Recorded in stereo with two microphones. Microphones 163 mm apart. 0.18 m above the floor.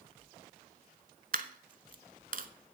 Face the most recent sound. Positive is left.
turn(degrees=-60)  # may be behind; listen again after turning